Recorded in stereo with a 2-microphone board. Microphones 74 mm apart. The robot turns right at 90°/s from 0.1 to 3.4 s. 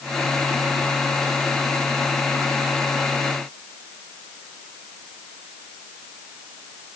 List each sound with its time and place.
Only background noise.